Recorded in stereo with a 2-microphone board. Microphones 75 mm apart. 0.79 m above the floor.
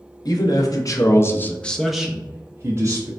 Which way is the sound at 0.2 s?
60° left (ahead or behind).